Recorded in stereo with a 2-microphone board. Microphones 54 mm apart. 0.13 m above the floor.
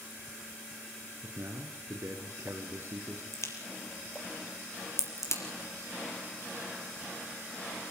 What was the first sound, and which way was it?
A man speaking, 55° right (ahead or behind).